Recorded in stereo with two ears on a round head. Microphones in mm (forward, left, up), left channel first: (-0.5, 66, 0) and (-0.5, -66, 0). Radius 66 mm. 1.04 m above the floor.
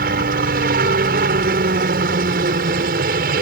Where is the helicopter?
65° right (ahead or behind).